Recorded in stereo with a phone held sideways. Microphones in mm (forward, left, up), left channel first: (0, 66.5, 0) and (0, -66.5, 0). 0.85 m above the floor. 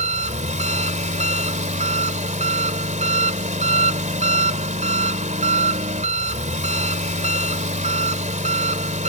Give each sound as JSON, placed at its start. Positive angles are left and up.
{"t": 0.0, "sound": "an engine running", "side_deg": -65}